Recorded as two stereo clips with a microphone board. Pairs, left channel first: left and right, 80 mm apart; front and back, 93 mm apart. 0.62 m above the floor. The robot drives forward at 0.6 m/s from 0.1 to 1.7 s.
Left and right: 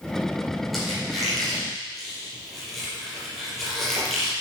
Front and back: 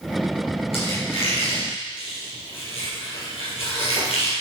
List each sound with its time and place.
0.7 s a squeak: straight ahead, 5.5 m